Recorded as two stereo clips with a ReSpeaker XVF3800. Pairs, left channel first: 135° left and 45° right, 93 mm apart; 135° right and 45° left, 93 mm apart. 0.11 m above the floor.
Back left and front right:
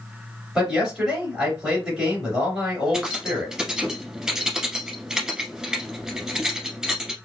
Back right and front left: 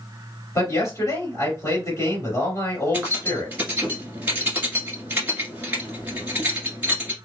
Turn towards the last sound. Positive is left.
turn(degrees=25)